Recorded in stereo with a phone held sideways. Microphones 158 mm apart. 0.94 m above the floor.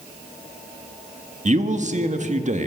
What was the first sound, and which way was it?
A man speaking, 50° right (ahead or behind).